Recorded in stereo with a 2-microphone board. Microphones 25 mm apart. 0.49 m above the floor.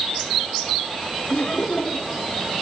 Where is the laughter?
45° left (ahead or behind), 1.2 m.